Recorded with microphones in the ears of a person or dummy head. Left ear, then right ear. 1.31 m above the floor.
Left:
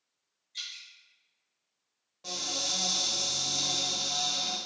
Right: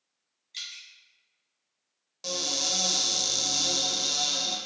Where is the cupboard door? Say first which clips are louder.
Right 4 dB; 80° right, 1.0 m.